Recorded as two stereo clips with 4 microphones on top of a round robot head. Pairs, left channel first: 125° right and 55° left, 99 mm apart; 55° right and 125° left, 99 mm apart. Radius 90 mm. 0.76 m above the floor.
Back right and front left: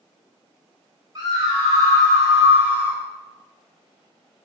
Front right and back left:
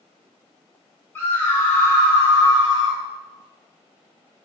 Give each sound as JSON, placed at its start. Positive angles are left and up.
{"t": 1.1, "sound": "a scream", "azimuth_deg": 10, "distance_m": 1.9}